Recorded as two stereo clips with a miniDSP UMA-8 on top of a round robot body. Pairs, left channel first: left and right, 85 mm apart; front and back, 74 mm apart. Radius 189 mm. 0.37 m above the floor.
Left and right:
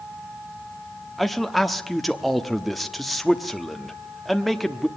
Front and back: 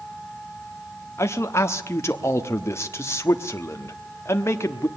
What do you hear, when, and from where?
1.2 s a man speaking: straight ahead, 1.3 m